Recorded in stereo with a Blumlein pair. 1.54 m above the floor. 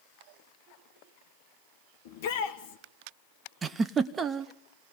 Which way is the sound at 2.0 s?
55° left.